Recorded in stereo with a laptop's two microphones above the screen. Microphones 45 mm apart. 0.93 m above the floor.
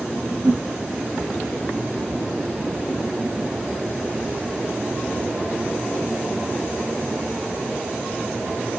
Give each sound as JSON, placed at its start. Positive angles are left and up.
{"t": 0.4, "sound": "a whoosh", "side_deg": -65, "distance_m": 5.0}